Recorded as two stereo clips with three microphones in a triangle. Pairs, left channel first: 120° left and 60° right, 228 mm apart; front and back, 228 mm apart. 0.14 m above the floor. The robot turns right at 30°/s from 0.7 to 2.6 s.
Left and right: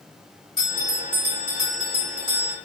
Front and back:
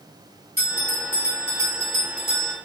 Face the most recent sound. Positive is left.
turn(degrees=-125)